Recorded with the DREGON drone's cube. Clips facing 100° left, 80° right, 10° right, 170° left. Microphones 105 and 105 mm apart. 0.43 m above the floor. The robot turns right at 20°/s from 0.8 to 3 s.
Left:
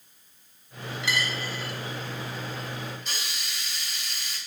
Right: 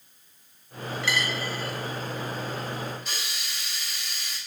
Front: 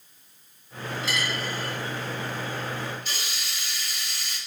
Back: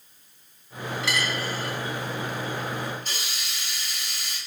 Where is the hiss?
165° right, 1.2 m.